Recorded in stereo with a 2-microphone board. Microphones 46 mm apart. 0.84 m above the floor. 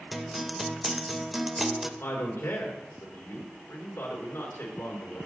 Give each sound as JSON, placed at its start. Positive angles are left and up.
{"t": 0.1, "sound": "a guitar", "side_deg": -5, "distance_m": 0.7}
{"t": 2.0, "sound": "a man speaking", "side_deg": 75, "distance_m": 3.5}